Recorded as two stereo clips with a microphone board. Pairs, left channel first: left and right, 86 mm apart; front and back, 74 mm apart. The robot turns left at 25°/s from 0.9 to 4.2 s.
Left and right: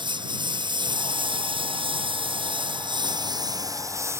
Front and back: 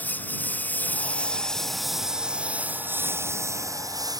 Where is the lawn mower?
65° right; by 4.2 s 150° right.